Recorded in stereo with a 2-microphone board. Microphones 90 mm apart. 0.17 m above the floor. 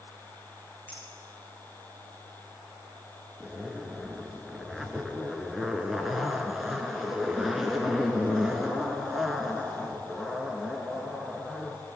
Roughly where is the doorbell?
I don't hear a doorbell.